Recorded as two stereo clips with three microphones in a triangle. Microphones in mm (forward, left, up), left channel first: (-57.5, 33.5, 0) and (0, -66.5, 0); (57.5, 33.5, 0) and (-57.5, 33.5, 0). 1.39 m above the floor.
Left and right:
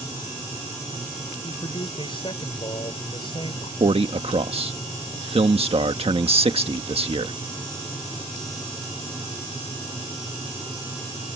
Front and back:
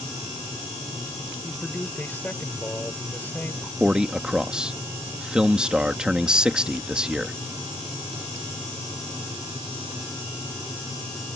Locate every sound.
1.4 s a man speaking: 75° left
3.8 s a man speaking: 95° right